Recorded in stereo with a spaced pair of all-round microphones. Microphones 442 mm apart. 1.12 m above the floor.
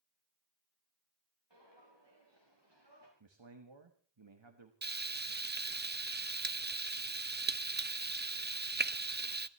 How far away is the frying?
About 0.6 m.